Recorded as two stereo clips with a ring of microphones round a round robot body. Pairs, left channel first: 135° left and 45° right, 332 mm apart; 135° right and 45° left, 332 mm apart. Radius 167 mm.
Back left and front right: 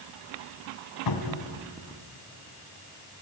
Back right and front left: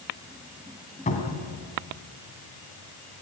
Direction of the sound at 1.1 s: 155° left.